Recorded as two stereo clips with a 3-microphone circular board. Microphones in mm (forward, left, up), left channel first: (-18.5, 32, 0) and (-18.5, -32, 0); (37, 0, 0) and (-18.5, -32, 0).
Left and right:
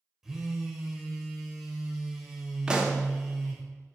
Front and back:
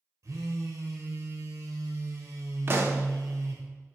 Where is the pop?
160° right, 0.8 m.